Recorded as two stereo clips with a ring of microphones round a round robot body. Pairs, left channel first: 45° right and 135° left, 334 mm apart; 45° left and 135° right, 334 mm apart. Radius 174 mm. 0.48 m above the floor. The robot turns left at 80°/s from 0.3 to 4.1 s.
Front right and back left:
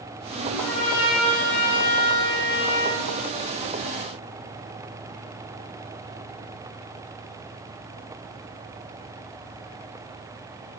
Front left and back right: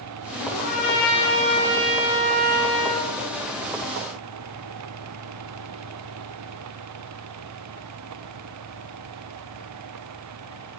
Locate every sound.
0.4 s a trumpet: 60° left, 4 m; by 3.0 s 150° right, 4 m